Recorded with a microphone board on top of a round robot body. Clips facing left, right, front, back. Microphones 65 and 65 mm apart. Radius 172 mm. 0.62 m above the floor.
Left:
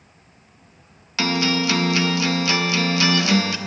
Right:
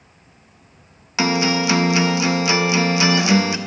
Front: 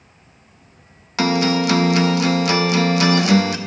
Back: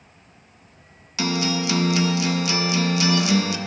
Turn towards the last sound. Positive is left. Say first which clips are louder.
# right 3 dB, front 6 dB
turn(degrees=-20)